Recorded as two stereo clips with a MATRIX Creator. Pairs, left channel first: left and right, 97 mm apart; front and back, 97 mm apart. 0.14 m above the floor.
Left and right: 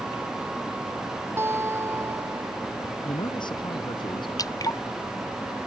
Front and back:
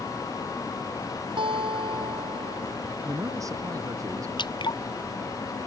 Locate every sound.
1.4 s a guitar: 155° right
3.0 s a man speaking: 125° left
4.4 s dripping: 40° left